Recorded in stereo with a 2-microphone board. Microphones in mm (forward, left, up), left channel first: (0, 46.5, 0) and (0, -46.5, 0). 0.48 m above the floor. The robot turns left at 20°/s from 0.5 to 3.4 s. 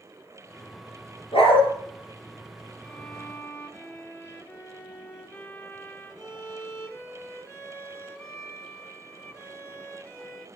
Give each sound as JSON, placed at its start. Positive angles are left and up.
{"t": 1.3, "sound": "a dog barking", "side_deg": 85, "distance_m": 4.0}
{"t": 2.8, "sound": "a violin", "side_deg": 25, "distance_m": 1.0}